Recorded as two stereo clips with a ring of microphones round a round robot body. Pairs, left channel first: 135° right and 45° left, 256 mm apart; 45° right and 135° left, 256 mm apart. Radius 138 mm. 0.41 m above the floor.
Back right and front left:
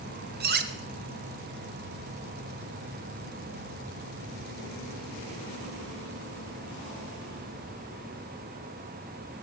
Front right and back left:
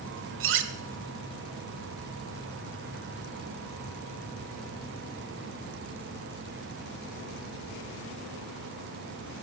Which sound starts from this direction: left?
Cutlery clinking, at 0.4 s.